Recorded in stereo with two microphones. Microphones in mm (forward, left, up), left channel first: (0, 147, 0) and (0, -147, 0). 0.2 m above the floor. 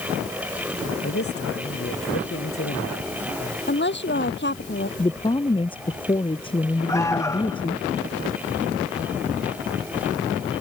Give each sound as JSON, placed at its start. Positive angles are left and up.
{"t": 1.0, "sound": "a man speaking", "side_deg": 50}
{"t": 3.7, "sound": "a woman speaking", "side_deg": 40}
{"t": 5.0, "sound": "a woman speaking", "side_deg": 15}
{"t": 6.9, "sound": "an alarm", "side_deg": 10}